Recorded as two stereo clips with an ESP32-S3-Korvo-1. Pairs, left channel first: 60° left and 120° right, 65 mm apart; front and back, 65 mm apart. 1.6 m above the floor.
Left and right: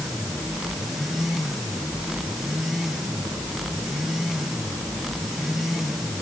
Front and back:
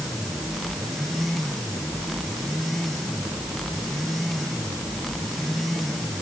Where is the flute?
I don't hear a flute.